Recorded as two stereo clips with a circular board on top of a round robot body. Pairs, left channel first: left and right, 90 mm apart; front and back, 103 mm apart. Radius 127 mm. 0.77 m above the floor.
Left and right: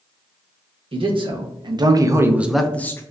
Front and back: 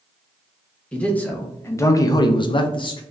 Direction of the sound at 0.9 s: 80° right.